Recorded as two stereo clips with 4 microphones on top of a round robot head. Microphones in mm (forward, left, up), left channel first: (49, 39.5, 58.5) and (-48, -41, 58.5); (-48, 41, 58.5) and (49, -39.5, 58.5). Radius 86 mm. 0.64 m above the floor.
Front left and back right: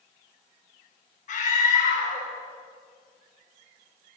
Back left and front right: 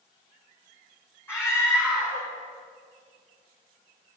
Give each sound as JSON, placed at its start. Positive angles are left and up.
{"t": 1.3, "sound": "a scream", "azimuth_deg": 70, "distance_m": 5.5}